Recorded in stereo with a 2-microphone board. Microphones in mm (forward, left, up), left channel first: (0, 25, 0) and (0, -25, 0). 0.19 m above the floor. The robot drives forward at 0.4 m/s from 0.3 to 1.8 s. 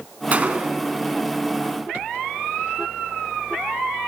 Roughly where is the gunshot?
Right.